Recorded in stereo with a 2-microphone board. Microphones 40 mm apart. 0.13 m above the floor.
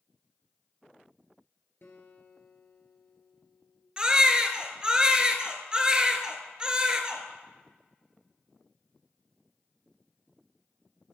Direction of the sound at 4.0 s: 20° right (ahead or behind).